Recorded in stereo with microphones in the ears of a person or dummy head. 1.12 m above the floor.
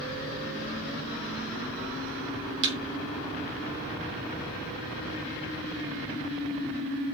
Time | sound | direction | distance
2.6 | a thud | 70° right (ahead or behind) | 3.5 m